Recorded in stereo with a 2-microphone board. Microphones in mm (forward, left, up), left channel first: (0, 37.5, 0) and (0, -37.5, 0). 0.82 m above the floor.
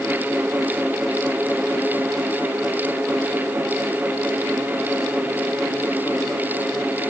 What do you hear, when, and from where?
Only background noise.